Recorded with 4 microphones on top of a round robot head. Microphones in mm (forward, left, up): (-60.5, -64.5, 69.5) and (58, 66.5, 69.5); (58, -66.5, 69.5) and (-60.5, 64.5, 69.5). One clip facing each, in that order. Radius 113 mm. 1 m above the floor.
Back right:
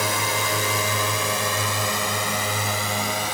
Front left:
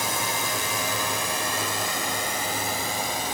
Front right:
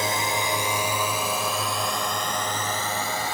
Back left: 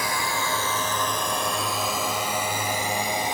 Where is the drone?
115° right; by 3.3 s 155° right.